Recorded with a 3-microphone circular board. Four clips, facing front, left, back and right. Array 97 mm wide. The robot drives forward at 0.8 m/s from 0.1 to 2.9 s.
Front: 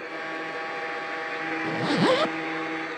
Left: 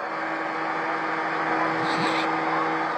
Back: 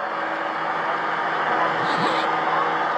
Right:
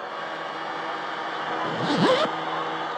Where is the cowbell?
I don't hear a cowbell.